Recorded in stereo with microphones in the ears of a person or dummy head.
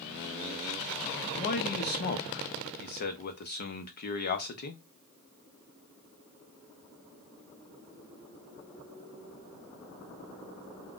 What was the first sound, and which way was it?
A man speaking, 45° left (ahead or behind).